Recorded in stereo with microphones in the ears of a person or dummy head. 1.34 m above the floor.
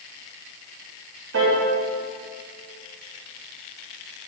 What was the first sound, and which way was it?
A piano, 75° right (ahead or behind).